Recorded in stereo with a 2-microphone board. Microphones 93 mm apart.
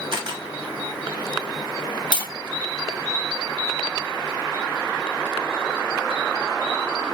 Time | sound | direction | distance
0.1 | a camera shutter | 55° right (ahead or behind) | 1.3 m
2.1 | tapping | 50° left (ahead or behind) | 1.8 m